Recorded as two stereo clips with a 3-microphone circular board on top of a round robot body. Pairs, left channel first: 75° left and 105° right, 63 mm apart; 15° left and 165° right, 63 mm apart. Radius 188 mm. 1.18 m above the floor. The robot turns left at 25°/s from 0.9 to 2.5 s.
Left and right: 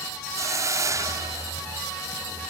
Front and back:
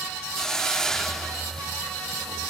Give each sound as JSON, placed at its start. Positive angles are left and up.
{"t": 0.3, "sound": "a hiss", "azimuth_deg": -70}